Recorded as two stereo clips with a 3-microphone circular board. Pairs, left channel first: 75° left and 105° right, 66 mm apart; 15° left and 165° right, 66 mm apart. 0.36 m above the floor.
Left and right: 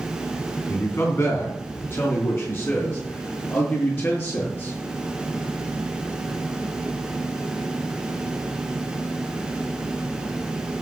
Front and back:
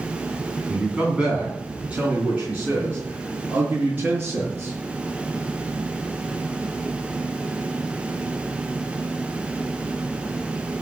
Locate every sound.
0.7 s a man speaking: 120° left, 3 m; by 4.7 s 130° left, 6 m